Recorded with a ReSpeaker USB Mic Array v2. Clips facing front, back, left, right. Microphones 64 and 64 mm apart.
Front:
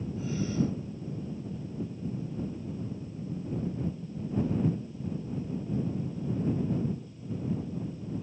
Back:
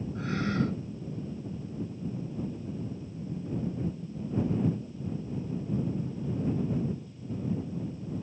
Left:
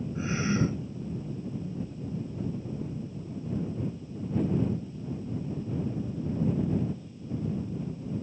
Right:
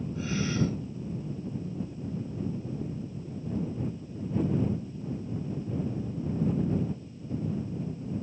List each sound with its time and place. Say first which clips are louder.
0.1 s a gasp: back 1 dB, left 2 dB; 155° left